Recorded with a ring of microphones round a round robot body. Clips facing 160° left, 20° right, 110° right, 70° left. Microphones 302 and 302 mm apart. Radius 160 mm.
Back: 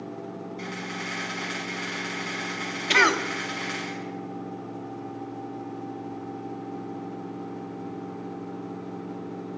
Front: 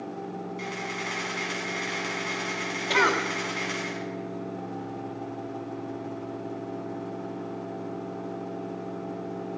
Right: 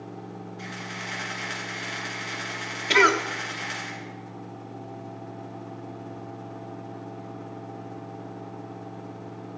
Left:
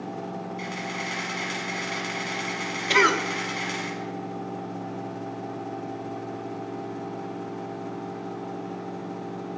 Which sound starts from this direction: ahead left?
A camera shutter, at 0.6 s.